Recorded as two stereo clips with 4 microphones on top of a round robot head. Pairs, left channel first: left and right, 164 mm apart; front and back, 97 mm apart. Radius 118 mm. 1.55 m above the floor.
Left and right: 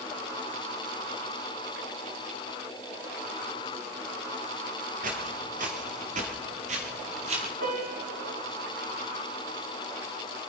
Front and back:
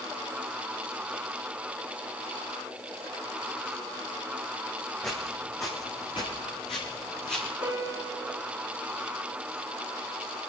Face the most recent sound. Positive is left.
turn(degrees=-130)